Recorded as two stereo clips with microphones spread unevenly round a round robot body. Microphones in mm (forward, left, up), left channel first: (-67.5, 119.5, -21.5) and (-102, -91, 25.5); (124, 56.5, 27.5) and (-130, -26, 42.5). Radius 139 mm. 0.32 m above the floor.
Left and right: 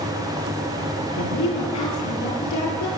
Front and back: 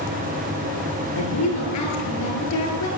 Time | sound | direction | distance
1.2 | a woman speaking | 45° left | 7.5 m